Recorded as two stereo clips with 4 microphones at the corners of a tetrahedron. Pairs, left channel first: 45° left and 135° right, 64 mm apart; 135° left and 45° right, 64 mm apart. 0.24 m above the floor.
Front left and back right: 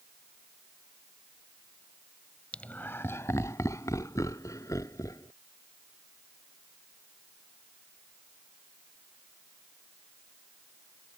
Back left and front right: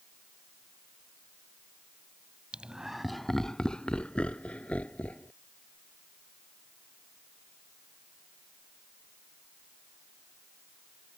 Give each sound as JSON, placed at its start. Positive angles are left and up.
{"t": 2.5, "sound": "laughter", "azimuth_deg": 0}